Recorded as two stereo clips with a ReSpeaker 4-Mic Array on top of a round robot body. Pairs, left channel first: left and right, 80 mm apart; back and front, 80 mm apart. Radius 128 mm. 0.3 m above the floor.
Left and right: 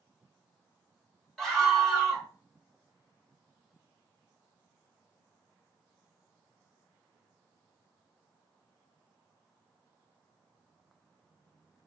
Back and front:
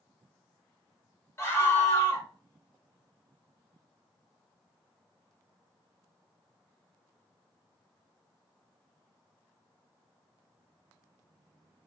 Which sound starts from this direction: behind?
A scream, at 1.4 s.